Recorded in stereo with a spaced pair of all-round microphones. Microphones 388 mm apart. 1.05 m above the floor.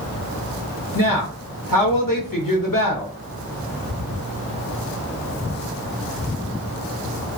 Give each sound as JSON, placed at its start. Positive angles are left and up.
{"t": 0.9, "sound": "a woman speaking", "side_deg": 60, "distance_m": 0.9}